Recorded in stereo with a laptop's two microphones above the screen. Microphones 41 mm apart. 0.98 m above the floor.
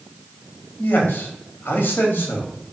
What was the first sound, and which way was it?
A man speaking, 55° left (ahead or behind).